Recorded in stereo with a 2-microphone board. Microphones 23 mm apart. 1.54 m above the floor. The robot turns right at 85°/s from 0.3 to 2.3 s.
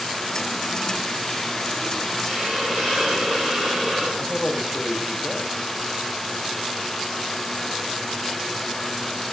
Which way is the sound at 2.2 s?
25° right (ahead or behind).